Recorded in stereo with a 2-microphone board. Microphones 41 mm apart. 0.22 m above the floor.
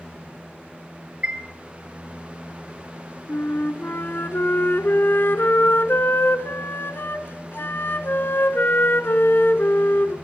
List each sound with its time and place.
1.2 s a chime: 30° right (ahead or behind), 2.5 m
3.3 s a flute: 55° left (ahead or behind), 1.5 m